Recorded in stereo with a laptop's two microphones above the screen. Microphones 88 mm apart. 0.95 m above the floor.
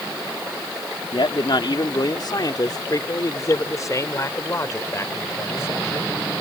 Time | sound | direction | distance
1.1 | a man speaking | 65° left (ahead or behind) | ?